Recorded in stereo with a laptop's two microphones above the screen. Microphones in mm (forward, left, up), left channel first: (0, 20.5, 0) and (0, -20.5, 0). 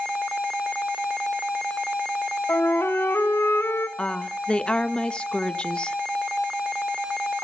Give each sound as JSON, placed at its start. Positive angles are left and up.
{"t": 2.5, "sound": "a flute", "side_deg": 80, "distance_m": 1.6}
{"t": 4.0, "sound": "a woman speaking", "side_deg": 25, "distance_m": 1.3}